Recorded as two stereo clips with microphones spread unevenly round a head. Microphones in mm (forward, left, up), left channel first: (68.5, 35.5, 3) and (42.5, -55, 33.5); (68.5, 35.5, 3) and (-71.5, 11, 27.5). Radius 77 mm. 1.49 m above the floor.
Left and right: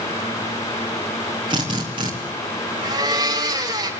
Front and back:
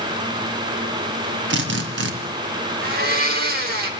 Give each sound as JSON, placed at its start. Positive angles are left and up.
{"t": 1.5, "sound": "a drill", "azimuth_deg": -165, "distance_m": 2.5}
{"t": 2.8, "sound": "a blender", "azimuth_deg": -160, "distance_m": 2.5}